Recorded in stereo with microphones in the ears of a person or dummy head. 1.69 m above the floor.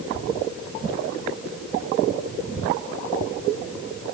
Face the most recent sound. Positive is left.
No sound to turn to.